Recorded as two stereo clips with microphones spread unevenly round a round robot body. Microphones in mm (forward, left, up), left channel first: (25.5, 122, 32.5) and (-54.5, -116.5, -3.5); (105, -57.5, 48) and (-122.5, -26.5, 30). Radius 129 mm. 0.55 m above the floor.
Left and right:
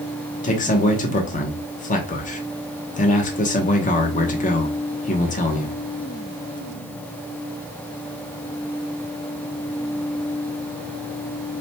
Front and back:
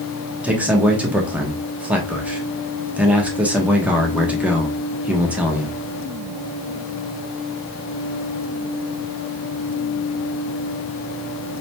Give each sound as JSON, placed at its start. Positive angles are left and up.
{"t": 0.4, "sound": "a man speaking", "azimuth_deg": 105, "distance_m": 1.0}